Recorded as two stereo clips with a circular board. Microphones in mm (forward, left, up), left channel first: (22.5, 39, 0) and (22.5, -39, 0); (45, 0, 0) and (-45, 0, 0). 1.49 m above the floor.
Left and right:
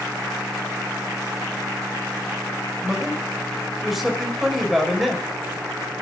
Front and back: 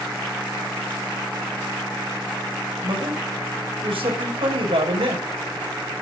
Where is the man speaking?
175° right, 5.5 m.